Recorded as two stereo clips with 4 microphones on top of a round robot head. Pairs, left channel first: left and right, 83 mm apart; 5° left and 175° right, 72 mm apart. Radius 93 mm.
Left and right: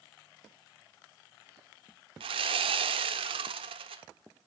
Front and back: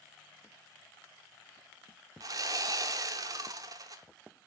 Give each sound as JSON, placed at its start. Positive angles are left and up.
{"t": 2.2, "sound": "sawing", "azimuth_deg": -120, "distance_m": 0.7}